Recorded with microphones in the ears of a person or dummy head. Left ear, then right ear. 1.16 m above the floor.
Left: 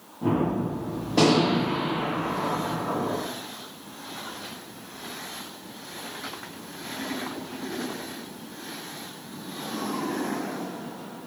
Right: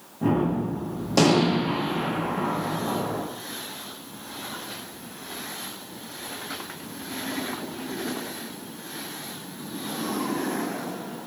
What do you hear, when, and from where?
0.2 s a gunshot: 80° right, 1.0 m